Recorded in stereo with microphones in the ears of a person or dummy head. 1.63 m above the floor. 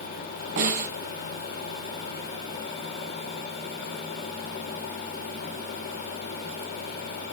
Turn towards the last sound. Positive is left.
turn(degrees=-45)  # may be behind; listen again after turning